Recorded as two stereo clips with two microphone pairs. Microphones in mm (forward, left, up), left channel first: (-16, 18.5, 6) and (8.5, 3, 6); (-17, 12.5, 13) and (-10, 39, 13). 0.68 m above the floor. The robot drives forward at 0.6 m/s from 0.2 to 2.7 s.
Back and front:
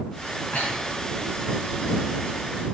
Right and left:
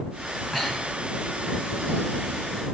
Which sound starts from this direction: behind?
Breathing, at 0.5 s.